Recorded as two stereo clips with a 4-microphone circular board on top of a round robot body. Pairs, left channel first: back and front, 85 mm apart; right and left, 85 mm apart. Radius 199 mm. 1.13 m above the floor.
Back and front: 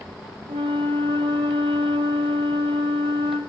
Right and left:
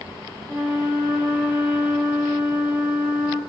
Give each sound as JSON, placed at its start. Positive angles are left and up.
{"t": 0.5, "sound": "a flute", "azimuth_deg": 10, "distance_m": 3.0}